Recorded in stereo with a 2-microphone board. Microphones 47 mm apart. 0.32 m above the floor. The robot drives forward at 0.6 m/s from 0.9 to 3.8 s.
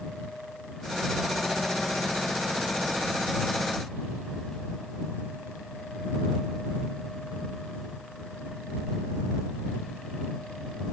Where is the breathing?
I don't hear breathing.